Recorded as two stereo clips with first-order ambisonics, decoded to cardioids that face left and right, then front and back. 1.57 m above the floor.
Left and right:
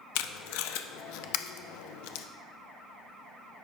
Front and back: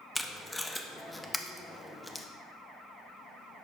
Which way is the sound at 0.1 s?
85° left.